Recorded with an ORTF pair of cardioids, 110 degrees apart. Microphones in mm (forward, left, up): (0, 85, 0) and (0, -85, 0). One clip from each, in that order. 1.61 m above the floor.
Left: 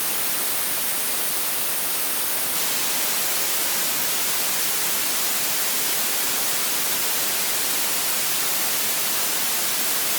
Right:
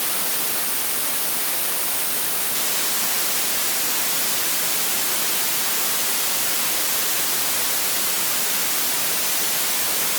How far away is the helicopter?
No helicopter in this recording.